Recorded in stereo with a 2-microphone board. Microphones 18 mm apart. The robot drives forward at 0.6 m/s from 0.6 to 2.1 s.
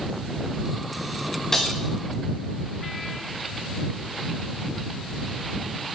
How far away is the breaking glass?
About 3 m.